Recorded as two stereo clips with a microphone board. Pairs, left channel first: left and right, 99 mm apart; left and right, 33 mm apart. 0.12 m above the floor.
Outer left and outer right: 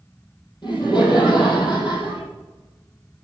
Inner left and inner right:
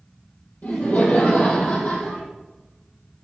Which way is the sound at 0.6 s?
50° left (ahead or behind).